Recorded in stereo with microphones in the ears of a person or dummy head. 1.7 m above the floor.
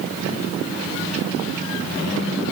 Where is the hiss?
I don't hear a hiss.